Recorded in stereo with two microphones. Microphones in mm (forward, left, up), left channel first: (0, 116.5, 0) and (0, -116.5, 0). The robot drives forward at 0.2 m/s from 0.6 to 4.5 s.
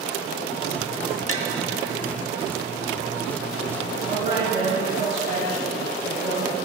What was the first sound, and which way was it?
Tapping, 65° left (ahead or behind).